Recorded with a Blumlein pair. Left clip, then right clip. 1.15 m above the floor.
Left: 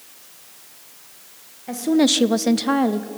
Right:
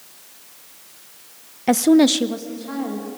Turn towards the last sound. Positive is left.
turn(degrees=70)